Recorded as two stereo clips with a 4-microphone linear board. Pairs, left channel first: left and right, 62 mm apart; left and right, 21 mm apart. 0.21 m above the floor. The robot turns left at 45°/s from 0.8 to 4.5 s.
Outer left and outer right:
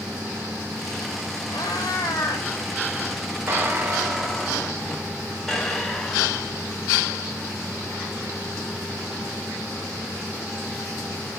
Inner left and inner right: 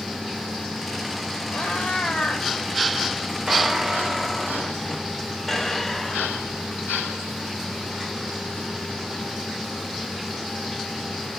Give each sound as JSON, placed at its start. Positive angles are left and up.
{"t": 1.5, "sound": "a cat meowing", "azimuth_deg": 95, "distance_m": 6.5}
{"t": 3.5, "sound": "a squeak", "azimuth_deg": -140, "distance_m": 3.5}